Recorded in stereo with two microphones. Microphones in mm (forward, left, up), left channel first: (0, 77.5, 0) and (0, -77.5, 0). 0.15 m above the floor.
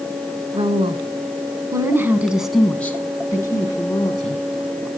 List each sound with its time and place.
0.5 s a woman speaking: 40° right (ahead or behind), 2 m; by 4.4 s 35° left (ahead or behind), 2 m